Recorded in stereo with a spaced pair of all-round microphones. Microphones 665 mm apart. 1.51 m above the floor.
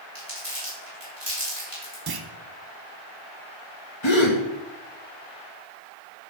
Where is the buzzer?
No buzzer in this recording.